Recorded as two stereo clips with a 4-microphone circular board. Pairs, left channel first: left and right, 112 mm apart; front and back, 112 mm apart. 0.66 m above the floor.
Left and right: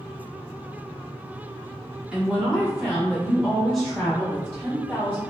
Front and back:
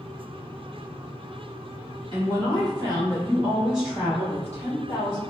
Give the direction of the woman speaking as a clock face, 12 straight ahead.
6 o'clock.